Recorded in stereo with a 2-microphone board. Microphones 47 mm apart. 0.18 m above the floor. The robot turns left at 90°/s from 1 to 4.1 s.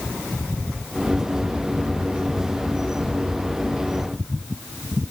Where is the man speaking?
No man speaking in this recording.